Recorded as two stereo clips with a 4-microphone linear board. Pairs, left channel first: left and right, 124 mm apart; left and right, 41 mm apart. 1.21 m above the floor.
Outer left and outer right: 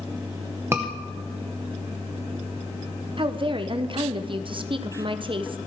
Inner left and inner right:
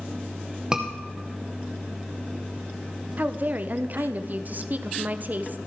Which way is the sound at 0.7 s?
20° right (ahead or behind).